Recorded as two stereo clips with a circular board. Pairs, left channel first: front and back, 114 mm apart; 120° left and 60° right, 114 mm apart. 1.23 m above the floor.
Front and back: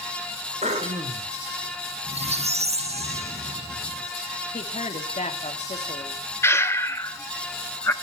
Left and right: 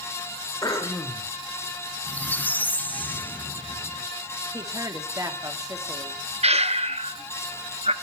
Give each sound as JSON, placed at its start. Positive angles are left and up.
{"t": 0.6, "sound": "throat clearing", "azimuth_deg": 180, "distance_m": 3.0}
{"t": 2.1, "sound": "a squeak", "azimuth_deg": -165, "distance_m": 0.7}
{"t": 4.5, "sound": "a woman speaking", "azimuth_deg": 0, "distance_m": 2.5}
{"t": 6.4, "sound": "breathing", "azimuth_deg": -65, "distance_m": 1.0}